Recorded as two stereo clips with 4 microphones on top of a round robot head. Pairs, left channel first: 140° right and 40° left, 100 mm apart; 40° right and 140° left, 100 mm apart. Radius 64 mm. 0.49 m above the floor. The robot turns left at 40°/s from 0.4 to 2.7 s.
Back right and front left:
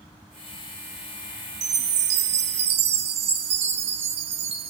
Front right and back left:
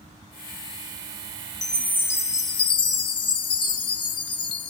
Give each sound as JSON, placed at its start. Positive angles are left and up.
{"t": 1.6, "sound": "a chime", "azimuth_deg": 50, "distance_m": 0.6}